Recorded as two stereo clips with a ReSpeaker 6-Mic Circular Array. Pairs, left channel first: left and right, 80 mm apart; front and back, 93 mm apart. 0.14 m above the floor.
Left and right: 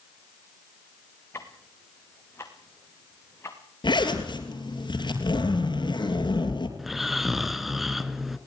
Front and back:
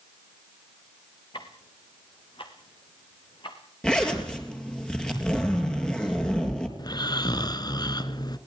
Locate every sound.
1.3 s ticking: 30° left, 3.5 m
3.8 s a zipper: 80° left, 3.5 m
6.8 s snoring: 5° right, 1.2 m